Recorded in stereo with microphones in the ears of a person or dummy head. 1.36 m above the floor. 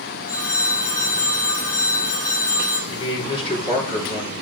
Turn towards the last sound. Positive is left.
turn(degrees=25)  # may be behind; listen again after turning